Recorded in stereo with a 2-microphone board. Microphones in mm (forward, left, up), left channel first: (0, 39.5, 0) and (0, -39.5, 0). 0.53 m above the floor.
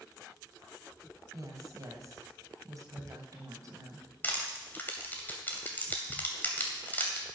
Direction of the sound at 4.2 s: 25° left (ahead or behind).